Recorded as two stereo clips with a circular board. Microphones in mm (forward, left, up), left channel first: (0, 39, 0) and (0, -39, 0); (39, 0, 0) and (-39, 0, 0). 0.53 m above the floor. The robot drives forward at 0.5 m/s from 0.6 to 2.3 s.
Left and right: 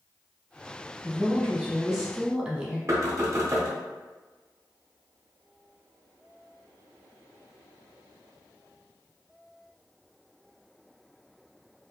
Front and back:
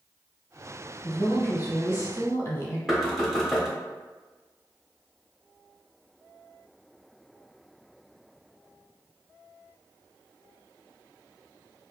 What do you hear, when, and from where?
1.0 s a woman speaking: 10° right, 1.2 m; by 2.8 s 25° right, 0.7 m
2.9 s knocking: 90° right, 0.5 m